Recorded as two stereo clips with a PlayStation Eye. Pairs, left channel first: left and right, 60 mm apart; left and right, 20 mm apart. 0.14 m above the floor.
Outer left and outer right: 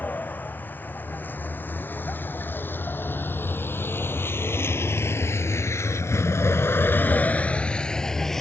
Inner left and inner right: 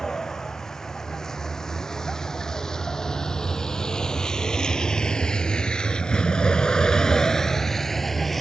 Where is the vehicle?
30° left (ahead or behind); by 8.4 s 5° left (ahead or behind).